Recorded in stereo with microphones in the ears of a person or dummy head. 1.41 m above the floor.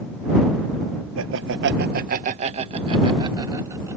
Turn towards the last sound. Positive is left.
turn(degrees=-15)  # may be behind; listen again after turning